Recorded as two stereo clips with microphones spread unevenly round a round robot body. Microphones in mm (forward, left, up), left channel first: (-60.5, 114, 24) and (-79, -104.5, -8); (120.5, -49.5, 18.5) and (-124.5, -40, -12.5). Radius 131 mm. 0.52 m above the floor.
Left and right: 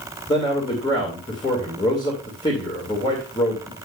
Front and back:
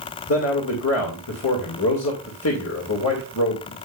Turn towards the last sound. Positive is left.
turn(degrees=10)